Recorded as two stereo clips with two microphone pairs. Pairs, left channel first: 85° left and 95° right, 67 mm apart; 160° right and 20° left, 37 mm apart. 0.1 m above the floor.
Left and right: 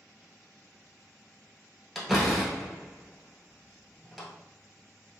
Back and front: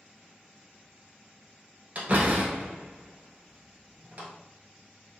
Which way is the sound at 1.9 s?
Straight ahead.